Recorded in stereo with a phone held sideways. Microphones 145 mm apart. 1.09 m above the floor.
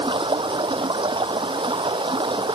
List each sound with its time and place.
0.0 s running water: 35° right (ahead or behind)